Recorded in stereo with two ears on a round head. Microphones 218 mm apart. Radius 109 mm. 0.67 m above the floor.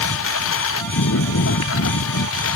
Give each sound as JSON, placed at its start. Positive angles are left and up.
{"t": 0.0, "sound": "a lawn mower", "side_deg": 60}